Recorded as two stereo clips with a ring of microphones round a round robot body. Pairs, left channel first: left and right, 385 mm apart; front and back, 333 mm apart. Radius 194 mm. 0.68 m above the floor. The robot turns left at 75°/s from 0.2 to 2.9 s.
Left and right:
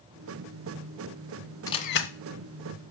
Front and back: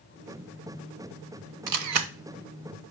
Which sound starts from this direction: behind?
A camera shutter, at 1.7 s.